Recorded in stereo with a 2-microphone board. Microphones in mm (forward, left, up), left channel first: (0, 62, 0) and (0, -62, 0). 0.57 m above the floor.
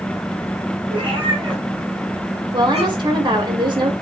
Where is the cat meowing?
40° right (ahead or behind), 4 m; by 3.2 s 65° right (ahead or behind), 4 m.